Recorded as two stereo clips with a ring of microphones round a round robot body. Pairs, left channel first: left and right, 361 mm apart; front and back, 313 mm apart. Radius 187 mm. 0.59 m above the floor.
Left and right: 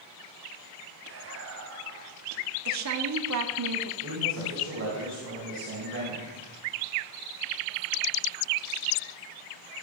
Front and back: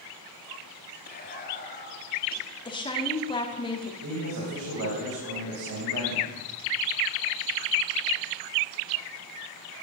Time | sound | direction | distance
1.1 | whispering | 55° right | 1.5 m
2.6 | a woman speaking | 70° right | 1.4 m
4.0 | a man speaking | 145° right | 3.5 m